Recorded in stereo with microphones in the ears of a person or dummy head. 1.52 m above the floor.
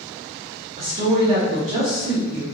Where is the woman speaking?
35° right (ahead or behind), 1.2 m.